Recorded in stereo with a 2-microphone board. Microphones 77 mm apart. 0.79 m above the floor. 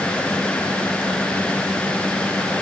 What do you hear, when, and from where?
Only background noise.